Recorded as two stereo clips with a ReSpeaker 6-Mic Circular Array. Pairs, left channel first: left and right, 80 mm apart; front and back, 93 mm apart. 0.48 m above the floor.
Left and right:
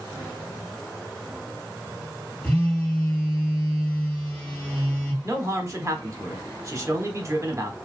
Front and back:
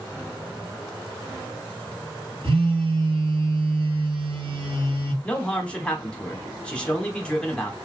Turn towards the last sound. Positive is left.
turn(degrees=-70)